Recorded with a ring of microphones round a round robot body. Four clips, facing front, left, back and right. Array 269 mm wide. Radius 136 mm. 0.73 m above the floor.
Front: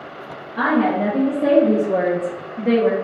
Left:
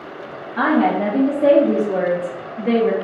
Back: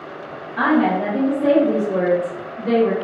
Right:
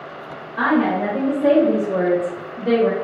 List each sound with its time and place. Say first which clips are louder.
0.6 s a woman speaking: left 1 dB, back 1 dB; 100° left, 0.7 m; by 2.9 s 20° right, 0.9 m